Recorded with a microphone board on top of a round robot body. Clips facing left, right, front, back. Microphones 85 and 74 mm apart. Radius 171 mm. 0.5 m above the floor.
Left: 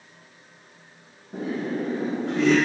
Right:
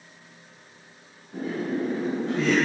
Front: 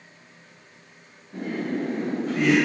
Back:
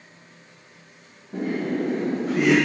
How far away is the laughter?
About 2 m.